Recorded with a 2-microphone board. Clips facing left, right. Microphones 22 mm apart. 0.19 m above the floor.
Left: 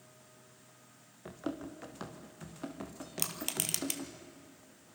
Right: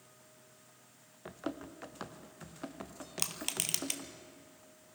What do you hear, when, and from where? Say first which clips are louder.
1.2 s running footsteps: left 1 dB; 10° right (ahead or behind), 1.8 m; by 4.1 s centre (ahead or behind), 3.5 m
3.2 s crushing: even; 10° right (ahead or behind), 1.6 m